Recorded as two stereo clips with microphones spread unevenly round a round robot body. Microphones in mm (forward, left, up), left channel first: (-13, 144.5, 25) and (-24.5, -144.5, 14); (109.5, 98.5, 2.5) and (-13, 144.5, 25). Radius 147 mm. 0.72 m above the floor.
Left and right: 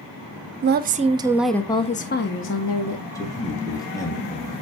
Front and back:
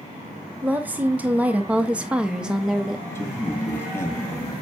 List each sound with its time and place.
0.6 s a woman speaking: 115° right, 0.7 m; by 3.0 s 65° left, 0.9 m
3.1 s a man speaking: 15° left, 1.0 m